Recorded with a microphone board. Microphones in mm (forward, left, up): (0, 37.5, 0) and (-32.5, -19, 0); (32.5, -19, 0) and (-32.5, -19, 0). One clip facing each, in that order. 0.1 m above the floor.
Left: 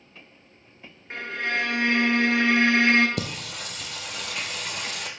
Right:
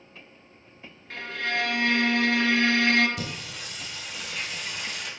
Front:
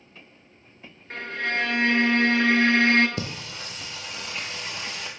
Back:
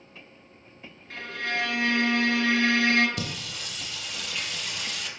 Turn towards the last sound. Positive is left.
turn(degrees=55)